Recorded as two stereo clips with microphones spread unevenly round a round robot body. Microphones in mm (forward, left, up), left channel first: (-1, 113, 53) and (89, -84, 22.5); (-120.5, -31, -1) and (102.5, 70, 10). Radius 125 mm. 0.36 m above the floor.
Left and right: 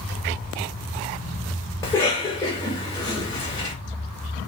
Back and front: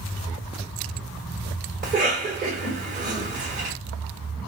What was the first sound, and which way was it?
A cough, 35° left.